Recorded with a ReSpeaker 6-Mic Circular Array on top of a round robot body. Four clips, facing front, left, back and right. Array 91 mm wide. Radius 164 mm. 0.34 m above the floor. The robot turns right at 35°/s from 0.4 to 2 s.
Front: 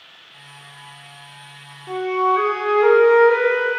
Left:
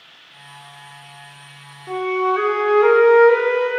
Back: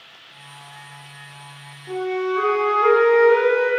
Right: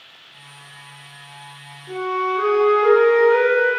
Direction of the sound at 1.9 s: 60° left.